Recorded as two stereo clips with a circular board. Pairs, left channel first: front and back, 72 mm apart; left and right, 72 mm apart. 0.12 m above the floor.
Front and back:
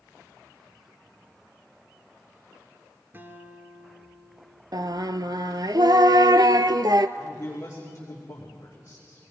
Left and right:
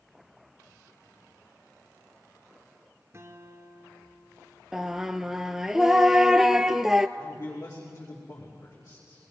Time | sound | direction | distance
3.1 | a guitar | 130° right | 1.8 m
4.7 | singing | 175° right | 0.6 m
7.2 | a man speaking | 55° left | 5.5 m